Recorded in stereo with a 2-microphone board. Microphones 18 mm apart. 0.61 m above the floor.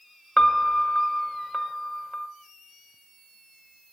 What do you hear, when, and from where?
0.4 s a piano: 35° left (ahead or behind), 1.0 m